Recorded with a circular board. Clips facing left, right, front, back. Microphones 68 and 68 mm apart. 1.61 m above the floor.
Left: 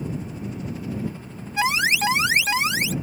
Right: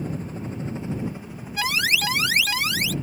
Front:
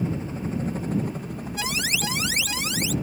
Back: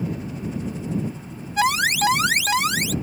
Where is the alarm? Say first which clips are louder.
Left 3 dB, back 10 dB; 155° left.